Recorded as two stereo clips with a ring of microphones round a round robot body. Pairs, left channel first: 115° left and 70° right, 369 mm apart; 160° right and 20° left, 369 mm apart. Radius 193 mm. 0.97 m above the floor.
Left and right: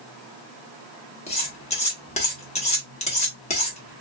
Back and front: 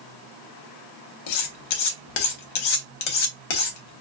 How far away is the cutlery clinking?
About 0.8 m.